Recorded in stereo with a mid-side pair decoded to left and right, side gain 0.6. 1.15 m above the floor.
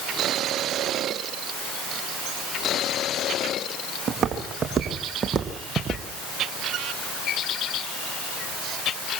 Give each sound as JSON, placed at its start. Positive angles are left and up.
{"t": 4.1, "sound": "footsteps", "azimuth_deg": -35, "distance_m": 4.5}